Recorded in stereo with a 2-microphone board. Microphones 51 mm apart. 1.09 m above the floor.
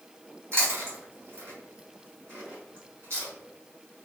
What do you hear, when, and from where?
0.5 s chewing: 55° right (ahead or behind), 1.9 m